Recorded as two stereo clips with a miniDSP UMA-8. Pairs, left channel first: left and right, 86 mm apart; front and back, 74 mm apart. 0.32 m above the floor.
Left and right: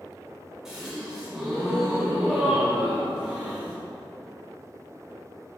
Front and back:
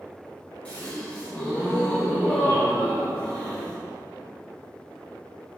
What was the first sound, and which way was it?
A gasp, 20° right.